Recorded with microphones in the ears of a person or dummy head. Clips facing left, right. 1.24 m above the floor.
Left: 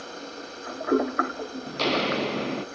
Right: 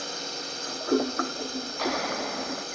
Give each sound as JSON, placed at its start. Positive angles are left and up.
{"t": 0.0, "sound": "a drone", "side_deg": -60}
{"t": 1.7, "sound": "footsteps", "side_deg": 50}